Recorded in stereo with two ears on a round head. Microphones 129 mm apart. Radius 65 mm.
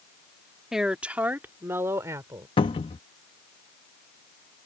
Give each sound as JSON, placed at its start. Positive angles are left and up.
{"t": 0.7, "sound": "a woman speaking", "side_deg": -5}
{"t": 2.6, "sound": "a cupboard door", "side_deg": 35}